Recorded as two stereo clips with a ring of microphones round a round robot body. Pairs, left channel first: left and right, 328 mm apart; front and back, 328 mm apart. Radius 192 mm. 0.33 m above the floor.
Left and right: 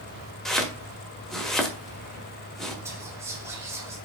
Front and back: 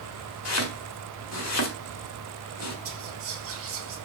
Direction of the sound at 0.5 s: Straight ahead.